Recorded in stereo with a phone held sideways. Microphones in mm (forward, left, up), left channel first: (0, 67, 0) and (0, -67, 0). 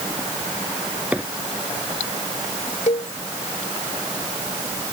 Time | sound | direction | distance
1.1 | a microwave | 10° right (ahead or behind) | ?
2.9 | a cowbell | 70° left (ahead or behind) | ?